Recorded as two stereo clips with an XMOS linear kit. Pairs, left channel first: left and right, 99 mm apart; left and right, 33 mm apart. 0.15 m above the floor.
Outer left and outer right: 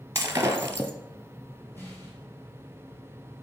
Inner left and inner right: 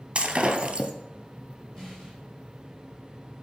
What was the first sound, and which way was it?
Breaking glass, 30° right (ahead or behind).